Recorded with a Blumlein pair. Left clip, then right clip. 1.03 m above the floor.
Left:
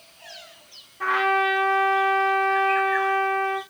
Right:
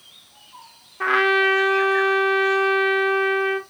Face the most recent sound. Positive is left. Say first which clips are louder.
# right 3 dB
turn(degrees=-25)